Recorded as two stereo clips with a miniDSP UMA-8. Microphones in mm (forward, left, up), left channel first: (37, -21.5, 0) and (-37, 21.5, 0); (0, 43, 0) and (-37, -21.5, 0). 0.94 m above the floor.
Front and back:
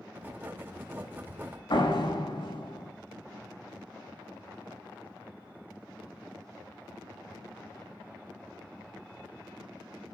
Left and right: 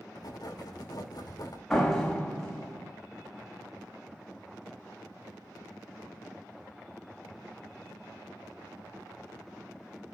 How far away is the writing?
About 2 m.